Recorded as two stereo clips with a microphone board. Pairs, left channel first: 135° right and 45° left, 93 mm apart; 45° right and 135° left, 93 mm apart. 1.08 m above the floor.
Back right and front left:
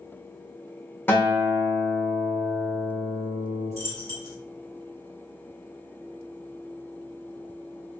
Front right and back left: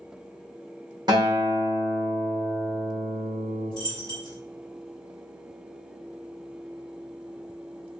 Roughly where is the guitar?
Behind.